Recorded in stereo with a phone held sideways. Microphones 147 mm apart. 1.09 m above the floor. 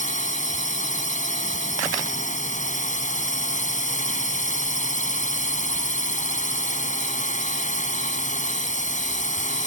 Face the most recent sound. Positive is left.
turn(degrees=60)  # may be behind; listen again after turning